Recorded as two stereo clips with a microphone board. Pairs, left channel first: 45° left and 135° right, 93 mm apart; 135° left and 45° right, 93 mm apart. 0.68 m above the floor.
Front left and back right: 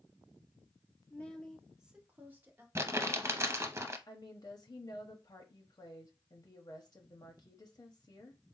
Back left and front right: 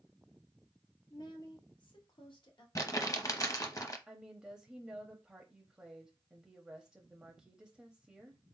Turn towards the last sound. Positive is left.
turn(degrees=35)